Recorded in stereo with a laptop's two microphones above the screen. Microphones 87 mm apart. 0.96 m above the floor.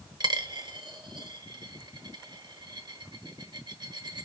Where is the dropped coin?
55° right (ahead or behind), 1.0 m.